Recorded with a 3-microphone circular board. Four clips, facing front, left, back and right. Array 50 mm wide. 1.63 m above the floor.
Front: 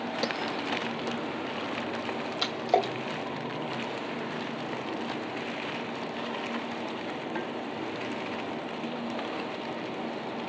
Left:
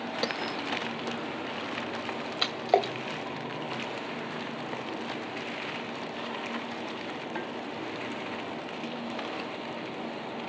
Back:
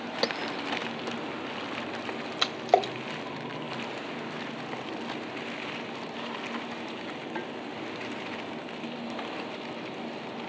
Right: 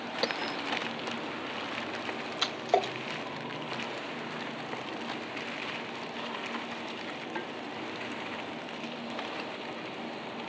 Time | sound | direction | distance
0.2 | a bell | 175° left | 0.8 m
2.4 | a splash | 155° left | 2.5 m